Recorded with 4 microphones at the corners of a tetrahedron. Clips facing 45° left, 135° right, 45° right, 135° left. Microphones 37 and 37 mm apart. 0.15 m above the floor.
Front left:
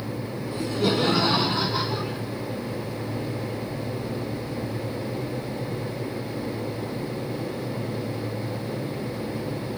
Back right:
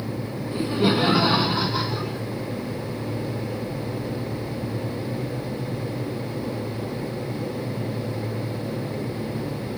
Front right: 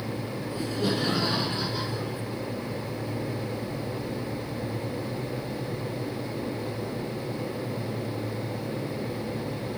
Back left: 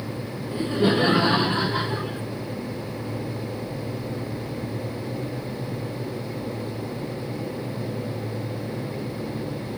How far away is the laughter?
About 1.8 m.